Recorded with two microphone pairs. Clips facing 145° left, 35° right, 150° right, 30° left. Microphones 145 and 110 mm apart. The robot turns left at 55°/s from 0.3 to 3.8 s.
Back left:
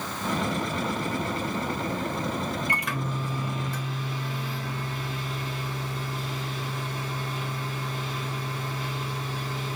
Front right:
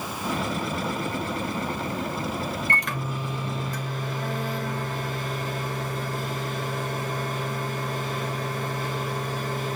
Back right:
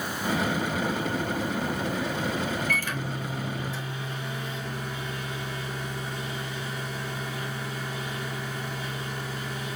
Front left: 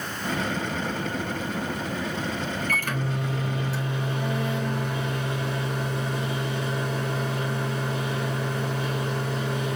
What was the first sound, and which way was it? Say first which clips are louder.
A microwave: front right 1 dB, front left 2 dB; 70° left.